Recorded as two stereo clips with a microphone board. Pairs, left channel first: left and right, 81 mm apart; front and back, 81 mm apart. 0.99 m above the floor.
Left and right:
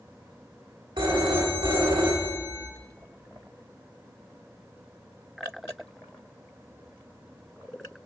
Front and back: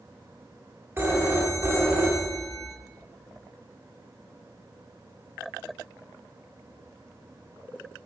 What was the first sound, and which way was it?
A phone ringing, 115° right.